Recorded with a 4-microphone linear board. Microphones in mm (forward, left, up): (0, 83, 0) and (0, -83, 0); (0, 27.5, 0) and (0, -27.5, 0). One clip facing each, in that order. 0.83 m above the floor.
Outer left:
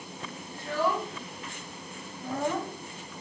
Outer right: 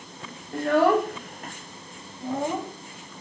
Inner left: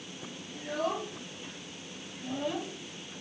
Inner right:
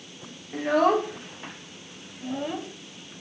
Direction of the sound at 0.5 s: 65° right (ahead or behind).